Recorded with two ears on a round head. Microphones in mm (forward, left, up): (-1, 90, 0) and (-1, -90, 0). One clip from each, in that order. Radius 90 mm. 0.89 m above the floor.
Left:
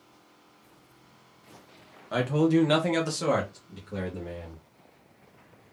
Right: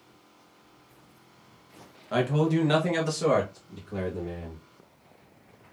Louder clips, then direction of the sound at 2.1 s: Left 1 dB; centre (ahead or behind).